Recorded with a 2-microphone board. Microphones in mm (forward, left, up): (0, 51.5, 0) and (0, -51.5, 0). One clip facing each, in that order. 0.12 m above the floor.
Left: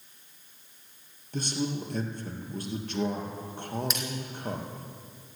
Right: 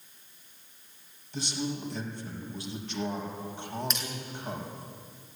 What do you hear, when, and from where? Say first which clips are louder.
1.3 s a man speaking: left 3 dB; 50° left (ahead or behind), 3.5 m
3.9 s a splash: left 2 dB; 5° left (ahead or behind), 3 m